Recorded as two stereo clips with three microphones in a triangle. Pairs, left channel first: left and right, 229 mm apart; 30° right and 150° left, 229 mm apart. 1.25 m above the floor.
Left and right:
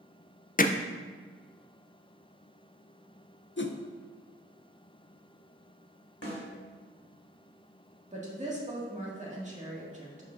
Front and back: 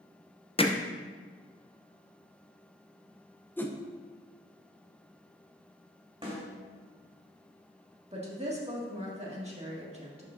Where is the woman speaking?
150° right, 1.8 m.